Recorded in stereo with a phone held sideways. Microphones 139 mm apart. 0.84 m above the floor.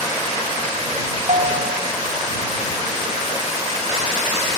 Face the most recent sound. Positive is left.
turn(degrees=-65)  # may be behind; listen again after turning